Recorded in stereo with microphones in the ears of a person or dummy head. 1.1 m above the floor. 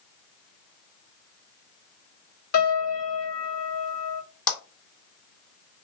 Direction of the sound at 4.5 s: 10° left (ahead or behind).